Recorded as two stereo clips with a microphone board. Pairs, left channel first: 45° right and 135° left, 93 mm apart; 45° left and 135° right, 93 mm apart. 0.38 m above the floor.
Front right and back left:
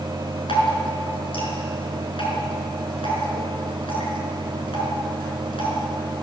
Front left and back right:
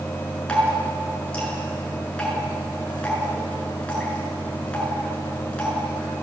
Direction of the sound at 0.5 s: 35° right.